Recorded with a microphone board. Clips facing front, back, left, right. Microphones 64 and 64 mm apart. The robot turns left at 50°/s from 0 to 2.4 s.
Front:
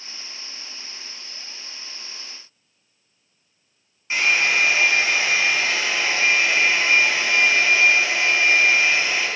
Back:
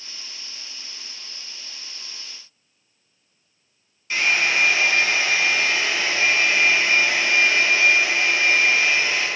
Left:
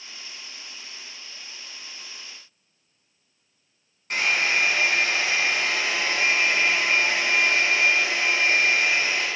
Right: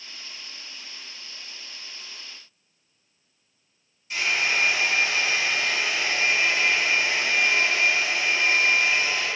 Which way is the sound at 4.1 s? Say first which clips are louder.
Front 1 dB, left 2 dB; 65° left.